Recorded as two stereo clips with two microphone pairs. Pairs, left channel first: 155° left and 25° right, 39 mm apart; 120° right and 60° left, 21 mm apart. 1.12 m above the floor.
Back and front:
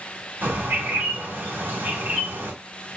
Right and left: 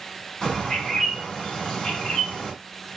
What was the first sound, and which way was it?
A bird, 60° right.